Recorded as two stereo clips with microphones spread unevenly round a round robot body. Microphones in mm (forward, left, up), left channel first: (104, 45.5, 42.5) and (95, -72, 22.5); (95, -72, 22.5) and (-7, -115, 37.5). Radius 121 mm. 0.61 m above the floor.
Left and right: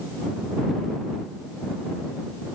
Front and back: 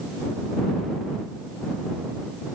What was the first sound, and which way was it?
Only background noise.